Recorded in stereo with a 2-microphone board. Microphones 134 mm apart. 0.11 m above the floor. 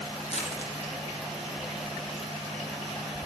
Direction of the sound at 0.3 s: 55° left (ahead or behind).